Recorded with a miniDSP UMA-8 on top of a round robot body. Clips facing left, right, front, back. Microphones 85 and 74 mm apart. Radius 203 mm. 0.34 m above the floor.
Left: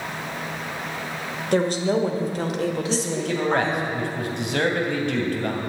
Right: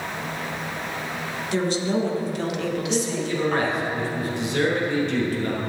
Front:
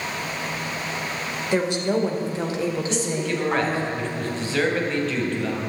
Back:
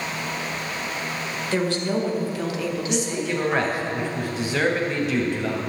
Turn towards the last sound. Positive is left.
turn(degrees=105)